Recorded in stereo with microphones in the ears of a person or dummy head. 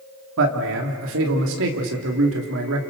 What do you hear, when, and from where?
0.4 s a man speaking: 70° right (ahead or behind), 3 m